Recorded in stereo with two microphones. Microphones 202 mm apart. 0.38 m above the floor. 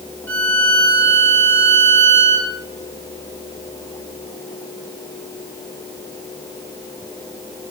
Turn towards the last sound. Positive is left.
turn(degrees=-90)